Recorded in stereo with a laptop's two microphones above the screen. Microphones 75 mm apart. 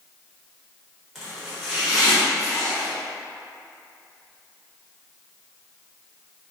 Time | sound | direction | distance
1.1 | chopping | centre (ahead or behind) | 1.2 m